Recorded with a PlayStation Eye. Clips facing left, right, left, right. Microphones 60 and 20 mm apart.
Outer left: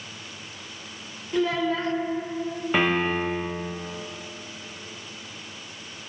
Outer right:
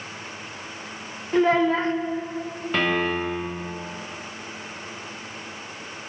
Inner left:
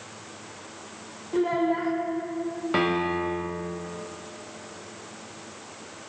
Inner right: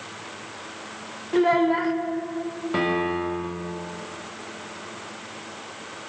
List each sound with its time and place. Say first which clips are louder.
1.3 s a child speaking: outer right 5 dB, inner right 5 dB; 35° right (ahead or behind), 0.8 m
2.7 s a piano: even, inner right 1 dB; 15° left (ahead or behind), 1.2 m